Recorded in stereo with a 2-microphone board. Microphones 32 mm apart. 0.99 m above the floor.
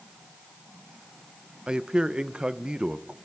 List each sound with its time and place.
1.7 s a man speaking: 30° right (ahead or behind), 0.5 m